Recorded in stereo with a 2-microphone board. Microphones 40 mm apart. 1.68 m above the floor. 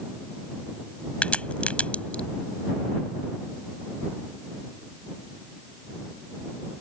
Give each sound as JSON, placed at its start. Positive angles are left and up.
{"t": 1.2, "sound": "a crack", "side_deg": 30}